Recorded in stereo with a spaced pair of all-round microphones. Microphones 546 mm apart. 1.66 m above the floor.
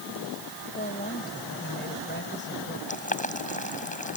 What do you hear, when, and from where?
0.8 s a woman speaking: 15° left (ahead or behind); by 2.8 s 20° left (ahead or behind)
2.9 s boiling: 15° left (ahead or behind)